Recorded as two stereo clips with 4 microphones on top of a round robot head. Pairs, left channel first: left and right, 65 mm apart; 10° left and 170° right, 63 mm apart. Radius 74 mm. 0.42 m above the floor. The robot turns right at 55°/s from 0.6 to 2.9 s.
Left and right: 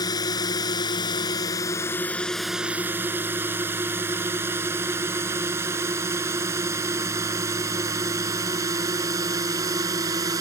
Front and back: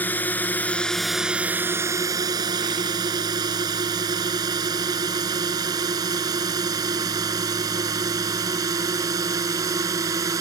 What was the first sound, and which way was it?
A drone, 70° left.